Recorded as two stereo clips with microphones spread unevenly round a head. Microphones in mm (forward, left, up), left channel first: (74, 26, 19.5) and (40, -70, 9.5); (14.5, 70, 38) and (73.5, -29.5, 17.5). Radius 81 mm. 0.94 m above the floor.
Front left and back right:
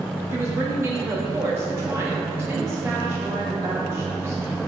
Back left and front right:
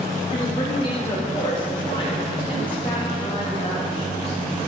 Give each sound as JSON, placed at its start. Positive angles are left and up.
{"t": 0.3, "sound": "a woman speaking", "azimuth_deg": 180, "distance_m": 1.5}